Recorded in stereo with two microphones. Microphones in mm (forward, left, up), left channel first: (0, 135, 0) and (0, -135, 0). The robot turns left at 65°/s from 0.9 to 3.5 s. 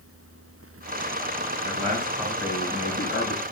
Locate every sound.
1.6 s a man speaking: 135° right, 3 m; by 3.4 s 110° left, 3 m